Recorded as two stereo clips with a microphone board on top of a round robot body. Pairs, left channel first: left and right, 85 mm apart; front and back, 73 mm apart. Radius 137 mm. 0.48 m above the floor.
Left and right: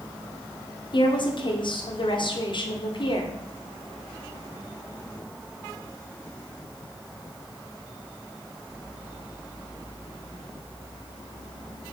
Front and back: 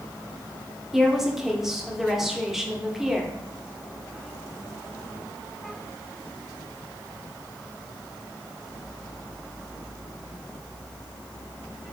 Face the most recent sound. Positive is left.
turn(degrees=95)